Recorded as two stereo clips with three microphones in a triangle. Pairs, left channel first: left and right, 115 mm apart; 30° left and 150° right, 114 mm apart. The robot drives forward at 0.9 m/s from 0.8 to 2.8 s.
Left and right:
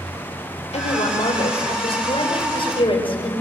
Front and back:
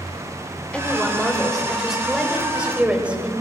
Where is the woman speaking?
110° left, 4 m; by 3.3 s 130° left, 5 m.